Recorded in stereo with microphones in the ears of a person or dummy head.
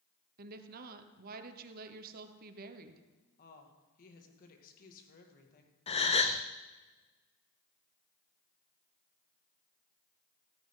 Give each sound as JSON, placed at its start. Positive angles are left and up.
{"t": 0.4, "sound": "a woman speaking", "side_deg": -50, "distance_m": 1.2}
{"t": 3.4, "sound": "a woman speaking", "side_deg": 45, "distance_m": 2.5}
{"t": 5.9, "sound": "a gasp", "side_deg": 35, "distance_m": 0.8}